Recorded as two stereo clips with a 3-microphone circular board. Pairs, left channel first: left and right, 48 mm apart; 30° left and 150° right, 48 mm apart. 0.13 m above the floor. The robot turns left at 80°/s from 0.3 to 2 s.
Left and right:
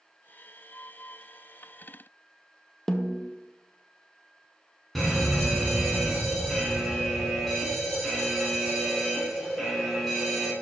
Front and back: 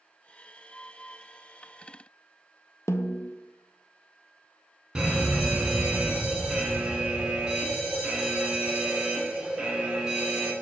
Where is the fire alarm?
175° left, 2 m.